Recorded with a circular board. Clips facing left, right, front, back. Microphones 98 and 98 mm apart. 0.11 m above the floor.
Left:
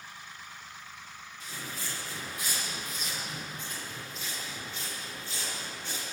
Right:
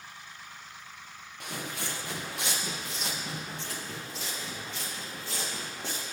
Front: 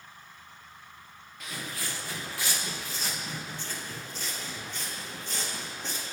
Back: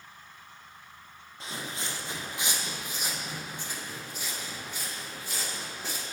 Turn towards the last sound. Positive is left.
turn(degrees=-100)